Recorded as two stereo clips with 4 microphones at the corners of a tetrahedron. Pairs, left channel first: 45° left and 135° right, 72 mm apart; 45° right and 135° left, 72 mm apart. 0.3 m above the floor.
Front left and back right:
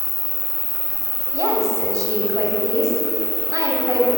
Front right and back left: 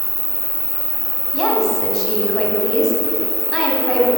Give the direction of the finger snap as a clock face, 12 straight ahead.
I don't hear a finger snap.